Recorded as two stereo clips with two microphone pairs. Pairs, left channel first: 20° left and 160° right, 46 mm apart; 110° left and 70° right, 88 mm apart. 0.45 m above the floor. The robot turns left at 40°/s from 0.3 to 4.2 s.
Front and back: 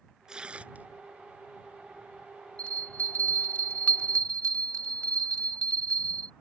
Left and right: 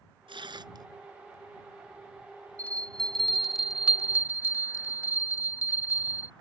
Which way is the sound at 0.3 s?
90° right.